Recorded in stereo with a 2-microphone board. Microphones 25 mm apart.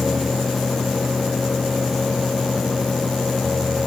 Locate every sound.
Only background noise.